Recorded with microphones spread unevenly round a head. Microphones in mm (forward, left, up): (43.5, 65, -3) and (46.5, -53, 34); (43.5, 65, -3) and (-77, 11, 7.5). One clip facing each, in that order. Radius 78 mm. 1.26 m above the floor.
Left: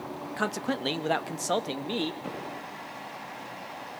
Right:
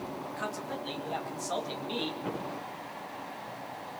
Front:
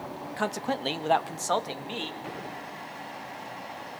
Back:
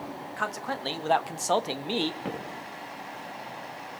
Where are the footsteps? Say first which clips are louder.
Right 1 dB, back 2 dB; 175° left, 7 m.